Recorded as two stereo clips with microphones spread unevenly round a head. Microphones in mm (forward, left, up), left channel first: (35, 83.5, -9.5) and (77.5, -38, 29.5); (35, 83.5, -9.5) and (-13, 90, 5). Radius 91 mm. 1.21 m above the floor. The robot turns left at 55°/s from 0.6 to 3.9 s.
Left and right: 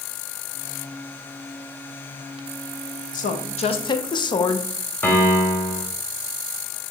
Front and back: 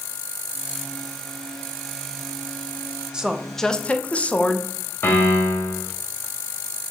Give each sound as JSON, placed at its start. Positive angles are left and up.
{"t": 3.1, "sound": "a woman speaking", "azimuth_deg": 100, "distance_m": 0.7}
{"t": 5.0, "sound": "a piano", "azimuth_deg": 25, "distance_m": 1.2}